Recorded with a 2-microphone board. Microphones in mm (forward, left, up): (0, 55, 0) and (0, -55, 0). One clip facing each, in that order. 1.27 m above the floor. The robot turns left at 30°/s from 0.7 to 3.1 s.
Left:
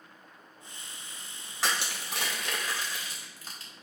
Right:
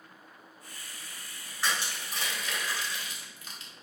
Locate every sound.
1.6 s crushing: 80° left, 1.9 m; by 3.8 s 35° left (ahead or behind), 1.9 m